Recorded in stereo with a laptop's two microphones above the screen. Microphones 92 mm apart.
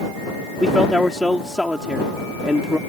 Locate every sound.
0.6 s a man speaking: 5° right (ahead or behind)